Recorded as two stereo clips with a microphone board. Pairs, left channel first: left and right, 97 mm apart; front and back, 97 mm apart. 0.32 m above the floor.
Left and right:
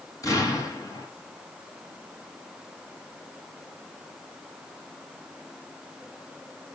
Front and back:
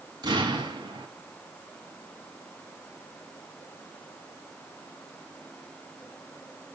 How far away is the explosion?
About 3 m.